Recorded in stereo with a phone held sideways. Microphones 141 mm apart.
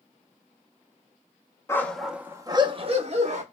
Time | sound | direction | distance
1.7 | a dog barking | 20° left (ahead or behind) | 0.6 m